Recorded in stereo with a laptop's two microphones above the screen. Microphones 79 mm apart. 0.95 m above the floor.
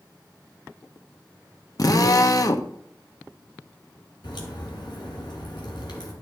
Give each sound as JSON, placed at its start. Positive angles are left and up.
{"t": 1.8, "sound": "a drill", "side_deg": 50, "distance_m": 0.9}
{"t": 4.2, "sound": "a crack", "side_deg": 70, "distance_m": 3.0}